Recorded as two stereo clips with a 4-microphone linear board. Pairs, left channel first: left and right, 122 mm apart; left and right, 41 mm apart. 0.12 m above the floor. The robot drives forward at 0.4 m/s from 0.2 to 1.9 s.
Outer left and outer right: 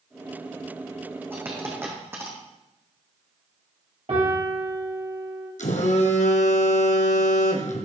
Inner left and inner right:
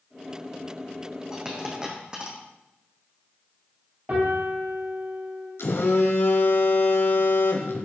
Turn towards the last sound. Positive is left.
turn(degrees=80)